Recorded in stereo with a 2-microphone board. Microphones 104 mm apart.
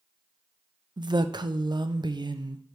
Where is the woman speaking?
45° right (ahead or behind), 0.6 m.